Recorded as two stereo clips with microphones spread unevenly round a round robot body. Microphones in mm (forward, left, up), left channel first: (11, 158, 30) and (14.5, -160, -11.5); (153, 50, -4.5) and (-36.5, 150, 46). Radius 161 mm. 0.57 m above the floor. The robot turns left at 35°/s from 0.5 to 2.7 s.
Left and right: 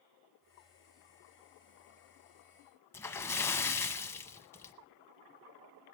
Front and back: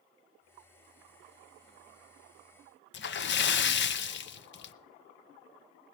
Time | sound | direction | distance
2.9 | a splash | 15° left | 0.6 m